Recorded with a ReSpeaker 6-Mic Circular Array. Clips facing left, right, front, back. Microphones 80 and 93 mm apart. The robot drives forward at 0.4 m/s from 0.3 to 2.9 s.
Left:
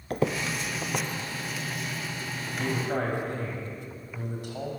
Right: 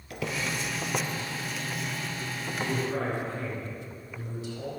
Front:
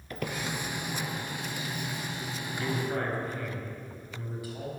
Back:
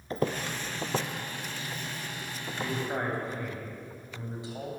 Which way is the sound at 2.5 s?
110° left.